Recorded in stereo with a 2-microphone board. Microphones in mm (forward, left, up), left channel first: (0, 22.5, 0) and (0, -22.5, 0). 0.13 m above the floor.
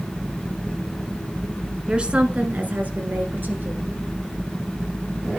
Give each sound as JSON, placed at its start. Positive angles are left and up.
{"t": 1.9, "sound": "a woman speaking", "side_deg": -20, "distance_m": 1.2}